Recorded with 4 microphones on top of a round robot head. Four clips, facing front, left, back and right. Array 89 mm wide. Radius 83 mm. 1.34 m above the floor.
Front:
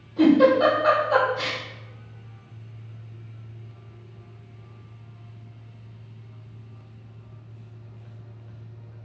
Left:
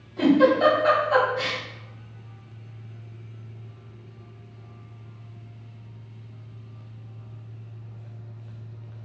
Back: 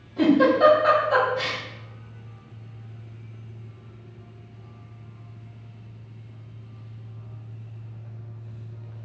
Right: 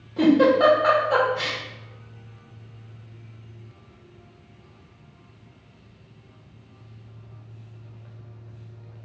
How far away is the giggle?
About 1.4 m.